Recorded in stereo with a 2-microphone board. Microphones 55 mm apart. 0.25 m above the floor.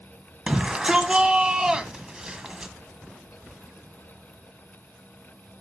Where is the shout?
15° right (ahead or behind), 1.4 m.